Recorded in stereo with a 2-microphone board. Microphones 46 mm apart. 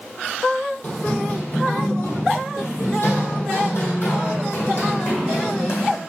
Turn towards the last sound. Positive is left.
turn(degrees=65)  # may be behind; listen again after turning